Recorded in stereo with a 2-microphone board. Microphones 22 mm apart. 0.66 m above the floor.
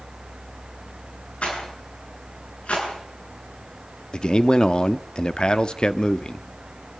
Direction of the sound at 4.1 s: 45° left (ahead or behind).